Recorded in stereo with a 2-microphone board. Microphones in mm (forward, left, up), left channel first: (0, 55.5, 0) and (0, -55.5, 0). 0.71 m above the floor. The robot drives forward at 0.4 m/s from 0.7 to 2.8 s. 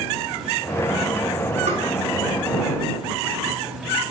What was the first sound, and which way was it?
Tapping, 90° right.